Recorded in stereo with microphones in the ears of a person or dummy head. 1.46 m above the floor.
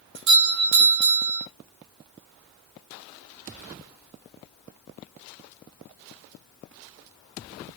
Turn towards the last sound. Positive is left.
turn(degrees=-65)  # may be behind; listen again after turning